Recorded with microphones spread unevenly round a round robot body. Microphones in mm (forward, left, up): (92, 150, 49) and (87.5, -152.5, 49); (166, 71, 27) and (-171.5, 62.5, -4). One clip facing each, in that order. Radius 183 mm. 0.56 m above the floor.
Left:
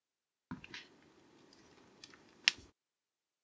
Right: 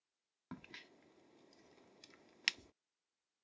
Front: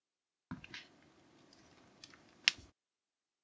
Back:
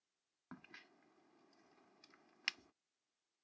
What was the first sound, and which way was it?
A crack, 25° left.